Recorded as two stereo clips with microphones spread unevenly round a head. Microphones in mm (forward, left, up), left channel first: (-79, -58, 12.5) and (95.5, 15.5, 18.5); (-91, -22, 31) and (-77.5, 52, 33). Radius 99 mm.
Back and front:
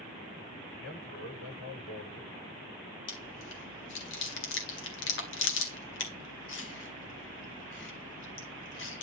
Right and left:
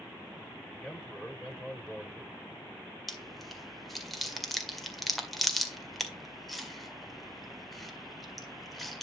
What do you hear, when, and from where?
0.7 s a man speaking: 165° left, 7 m
3.1 s chewing: 170° left, 1.9 m